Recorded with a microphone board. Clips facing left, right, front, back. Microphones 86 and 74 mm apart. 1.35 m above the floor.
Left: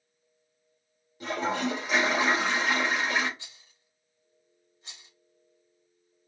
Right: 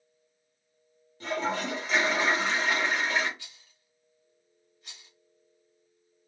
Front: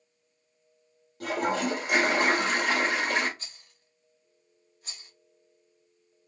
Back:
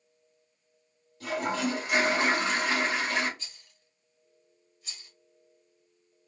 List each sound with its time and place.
1.2 s a toilet flushing: 15° left, 2.0 m
3.4 s a rattle: 30° left, 1.3 m